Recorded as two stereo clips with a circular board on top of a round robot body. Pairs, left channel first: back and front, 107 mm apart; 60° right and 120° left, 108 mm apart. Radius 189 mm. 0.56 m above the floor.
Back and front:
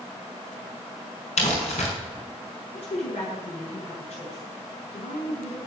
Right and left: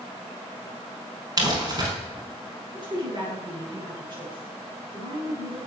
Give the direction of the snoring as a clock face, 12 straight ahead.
I don't hear snoring.